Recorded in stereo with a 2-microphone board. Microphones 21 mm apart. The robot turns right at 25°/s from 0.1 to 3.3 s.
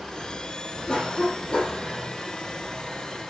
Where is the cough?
40° left (ahead or behind), 4.5 m; by 1.9 s 60° left (ahead or behind), 4.5 m.